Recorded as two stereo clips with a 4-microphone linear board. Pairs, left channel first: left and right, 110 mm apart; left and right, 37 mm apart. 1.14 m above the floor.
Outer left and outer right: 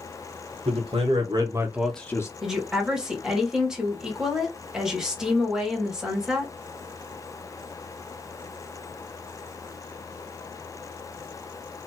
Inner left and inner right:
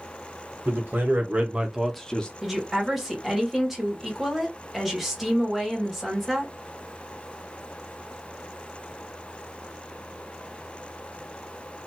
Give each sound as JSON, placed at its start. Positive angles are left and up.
{"t": 0.7, "sound": "a man speaking", "side_deg": -65, "distance_m": 1.5}
{"t": 2.4, "sound": "a woman speaking", "side_deg": -5, "distance_m": 1.2}